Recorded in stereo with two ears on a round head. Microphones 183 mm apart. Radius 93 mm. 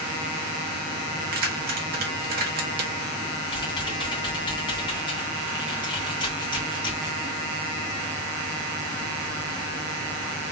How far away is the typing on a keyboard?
About 2.5 m.